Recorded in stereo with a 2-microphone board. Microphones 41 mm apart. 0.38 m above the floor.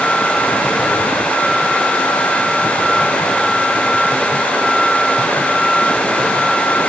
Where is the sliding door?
No sliding door in this recording.